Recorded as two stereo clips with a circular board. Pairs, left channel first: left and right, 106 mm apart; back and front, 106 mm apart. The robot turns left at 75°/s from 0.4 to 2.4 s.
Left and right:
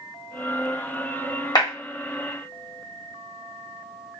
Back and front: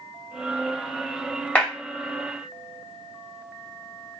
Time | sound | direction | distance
1.6 | a clap | 115° left | 1.2 m